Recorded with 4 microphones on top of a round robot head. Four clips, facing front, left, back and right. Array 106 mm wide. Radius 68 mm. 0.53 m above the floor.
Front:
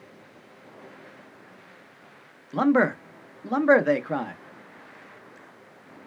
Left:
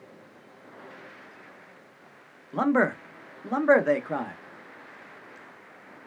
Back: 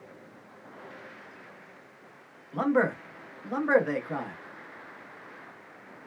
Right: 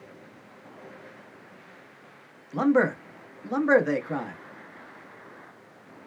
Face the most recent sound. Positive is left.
turn(degrees=35)